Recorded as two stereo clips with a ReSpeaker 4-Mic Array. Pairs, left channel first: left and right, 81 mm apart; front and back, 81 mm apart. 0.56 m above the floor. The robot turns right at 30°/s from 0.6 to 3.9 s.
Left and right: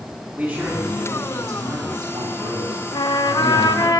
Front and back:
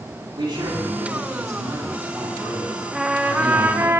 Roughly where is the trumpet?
Left.